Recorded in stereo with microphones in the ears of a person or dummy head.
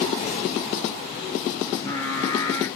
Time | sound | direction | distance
1.7 | singing | 20° left (ahead or behind) | 1.1 m